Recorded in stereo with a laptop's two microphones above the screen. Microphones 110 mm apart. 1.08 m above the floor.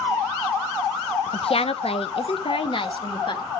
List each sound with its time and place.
1.3 s a woman speaking: 55° left (ahead or behind), 0.6 m; by 3.4 s 45° left (ahead or behind), 2.0 m